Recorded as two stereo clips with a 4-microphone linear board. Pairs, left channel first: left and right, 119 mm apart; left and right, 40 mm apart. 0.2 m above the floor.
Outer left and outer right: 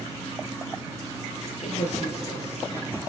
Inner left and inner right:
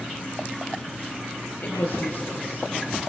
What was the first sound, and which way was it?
A woman speaking, 70° left (ahead or behind).